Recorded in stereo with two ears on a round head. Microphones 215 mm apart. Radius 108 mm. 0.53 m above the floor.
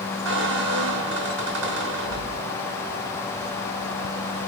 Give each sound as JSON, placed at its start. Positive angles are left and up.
{"t": 0.2, "sound": "a squeak", "side_deg": -50, "distance_m": 1.0}